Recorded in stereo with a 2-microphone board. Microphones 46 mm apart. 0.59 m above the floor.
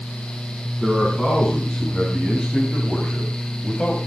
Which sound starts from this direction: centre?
A man speaking, at 0.8 s.